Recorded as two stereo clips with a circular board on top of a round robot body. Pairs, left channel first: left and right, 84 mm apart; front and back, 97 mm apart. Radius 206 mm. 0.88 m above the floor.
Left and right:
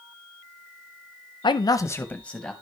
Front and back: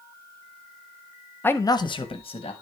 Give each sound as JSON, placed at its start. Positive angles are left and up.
{"t": 1.4, "sound": "a man speaking", "azimuth_deg": 70, "distance_m": 0.8}